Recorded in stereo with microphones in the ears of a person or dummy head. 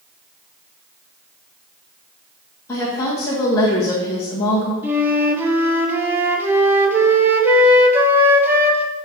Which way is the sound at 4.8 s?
10° right (ahead or behind).